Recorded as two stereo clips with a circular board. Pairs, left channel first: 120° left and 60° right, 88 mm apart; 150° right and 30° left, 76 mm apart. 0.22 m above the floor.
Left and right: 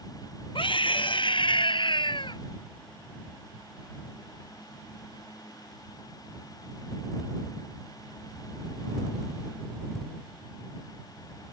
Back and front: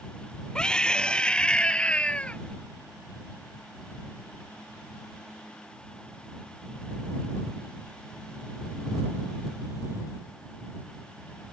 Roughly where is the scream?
Behind left.